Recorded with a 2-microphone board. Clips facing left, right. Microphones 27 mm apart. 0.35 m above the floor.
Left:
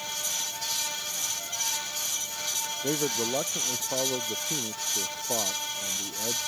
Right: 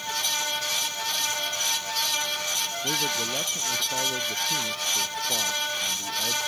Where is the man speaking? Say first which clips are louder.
Even; 30° left (ahead or behind); by 6.4 s 15° left (ahead or behind).